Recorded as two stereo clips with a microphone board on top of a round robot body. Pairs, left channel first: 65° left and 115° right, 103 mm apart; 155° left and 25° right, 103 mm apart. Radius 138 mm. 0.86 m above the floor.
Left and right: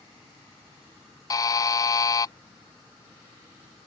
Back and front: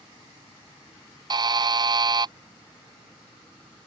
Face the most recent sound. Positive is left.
turn(degrees=15)